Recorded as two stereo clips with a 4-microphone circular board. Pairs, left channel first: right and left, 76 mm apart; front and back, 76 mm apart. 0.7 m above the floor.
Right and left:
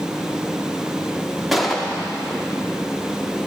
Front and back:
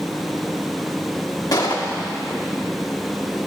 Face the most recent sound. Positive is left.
turn(degrees=0)